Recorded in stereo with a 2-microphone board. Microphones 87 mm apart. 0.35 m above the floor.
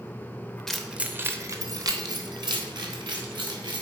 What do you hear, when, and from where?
0.7 s keys jangling: 5° left (ahead or behind), 0.6 m; by 3.8 s 60° right (ahead or behind), 2 m